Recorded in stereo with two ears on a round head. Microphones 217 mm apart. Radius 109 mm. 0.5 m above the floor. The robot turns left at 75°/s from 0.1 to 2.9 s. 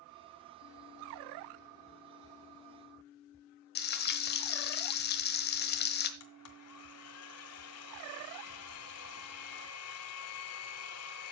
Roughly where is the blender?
Left.